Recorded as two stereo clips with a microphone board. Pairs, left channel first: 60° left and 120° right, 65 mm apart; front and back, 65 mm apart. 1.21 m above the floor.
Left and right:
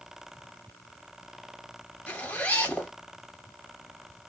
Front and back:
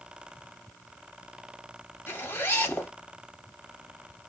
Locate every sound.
2.1 s a zipper: 15° left, 1.1 m